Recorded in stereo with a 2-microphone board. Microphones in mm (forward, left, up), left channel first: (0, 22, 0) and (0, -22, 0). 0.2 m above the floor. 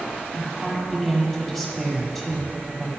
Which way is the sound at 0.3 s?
Centre (ahead or behind).